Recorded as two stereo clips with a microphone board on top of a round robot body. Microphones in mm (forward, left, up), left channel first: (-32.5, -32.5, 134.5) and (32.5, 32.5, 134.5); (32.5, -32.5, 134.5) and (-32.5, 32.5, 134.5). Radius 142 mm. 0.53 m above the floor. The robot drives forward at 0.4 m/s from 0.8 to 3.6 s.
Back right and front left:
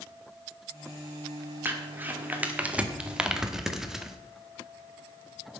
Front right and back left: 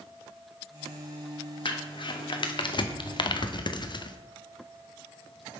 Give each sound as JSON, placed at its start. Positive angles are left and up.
{"t": 1.6, "sound": "crumpling", "azimuth_deg": -20, "distance_m": 1.8}